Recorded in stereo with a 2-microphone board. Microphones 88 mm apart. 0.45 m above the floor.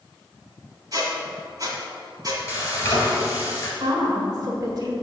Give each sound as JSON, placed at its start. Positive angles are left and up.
{"t": 0.9, "sound": "a squeak", "side_deg": -45, "distance_m": 1.5}
{"t": 2.5, "sound": "frying", "side_deg": 35, "distance_m": 1.5}
{"t": 3.8, "sound": "a woman speaking", "side_deg": -45, "distance_m": 1.3}